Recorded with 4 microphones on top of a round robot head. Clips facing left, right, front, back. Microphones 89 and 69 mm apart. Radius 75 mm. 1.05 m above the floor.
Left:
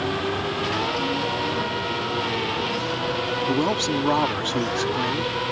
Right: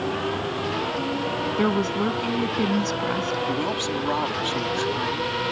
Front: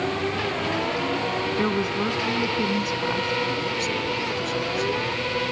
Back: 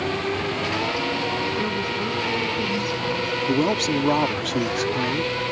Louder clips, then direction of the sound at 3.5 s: Left 3 dB, back 5 dB; 160° left.